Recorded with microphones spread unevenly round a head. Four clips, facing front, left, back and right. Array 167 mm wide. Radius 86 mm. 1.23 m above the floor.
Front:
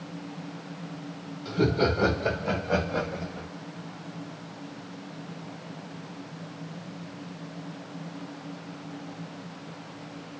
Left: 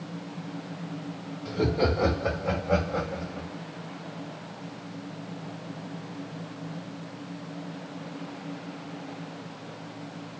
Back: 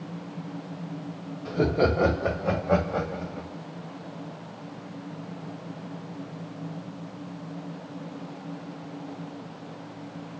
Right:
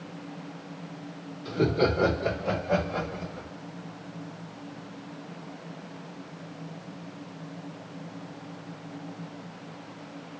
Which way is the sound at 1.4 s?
Straight behind.